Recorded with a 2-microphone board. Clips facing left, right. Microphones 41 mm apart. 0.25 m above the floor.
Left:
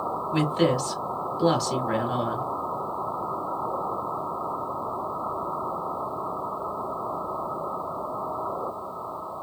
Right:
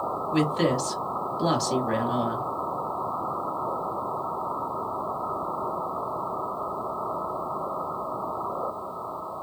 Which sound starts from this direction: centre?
A woman speaking, at 0.3 s.